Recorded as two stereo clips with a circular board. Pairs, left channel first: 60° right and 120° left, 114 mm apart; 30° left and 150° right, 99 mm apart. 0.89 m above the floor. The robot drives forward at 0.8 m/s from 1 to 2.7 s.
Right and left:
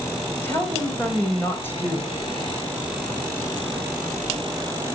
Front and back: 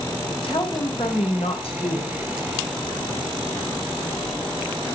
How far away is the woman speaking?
About 5 m.